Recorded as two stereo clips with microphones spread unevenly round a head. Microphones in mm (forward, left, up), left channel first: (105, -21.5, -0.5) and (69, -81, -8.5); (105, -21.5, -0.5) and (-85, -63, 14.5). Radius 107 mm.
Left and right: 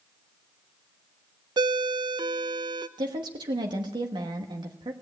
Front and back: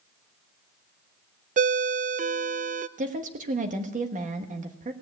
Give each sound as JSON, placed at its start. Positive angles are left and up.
{"t": 1.6, "sound": "a ringtone", "azimuth_deg": -115, "distance_m": 0.5}
{"t": 3.0, "sound": "a woman speaking", "azimuth_deg": -115, "distance_m": 1.2}